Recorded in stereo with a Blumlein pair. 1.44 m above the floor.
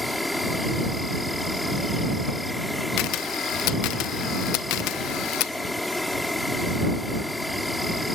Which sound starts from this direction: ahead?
An insect, at 0.0 s.